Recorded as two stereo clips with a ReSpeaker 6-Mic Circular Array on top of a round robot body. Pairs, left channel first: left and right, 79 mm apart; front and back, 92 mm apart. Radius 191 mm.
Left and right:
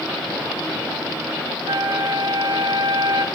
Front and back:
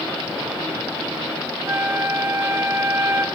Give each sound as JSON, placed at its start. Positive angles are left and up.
{"t": 1.7, "sound": "a flute", "azimuth_deg": -115, "distance_m": 1.0}